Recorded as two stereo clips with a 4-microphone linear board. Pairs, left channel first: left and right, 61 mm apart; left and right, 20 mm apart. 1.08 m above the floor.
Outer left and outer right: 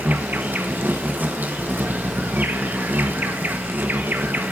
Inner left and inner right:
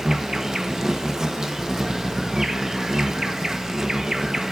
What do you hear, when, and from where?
0.0 s an insect: 30° right (ahead or behind), 0.9 m